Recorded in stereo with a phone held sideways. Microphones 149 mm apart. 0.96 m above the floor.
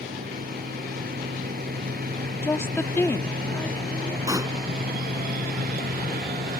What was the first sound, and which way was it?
A machine running, 75° right (ahead or behind).